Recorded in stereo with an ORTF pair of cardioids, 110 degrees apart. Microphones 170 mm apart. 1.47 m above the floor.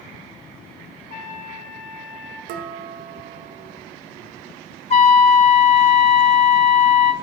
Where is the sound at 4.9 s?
40° left, 0.8 m.